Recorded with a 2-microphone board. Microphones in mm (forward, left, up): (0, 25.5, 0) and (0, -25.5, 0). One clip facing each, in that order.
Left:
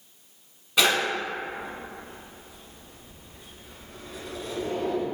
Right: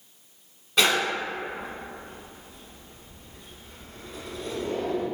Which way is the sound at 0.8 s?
5° left (ahead or behind).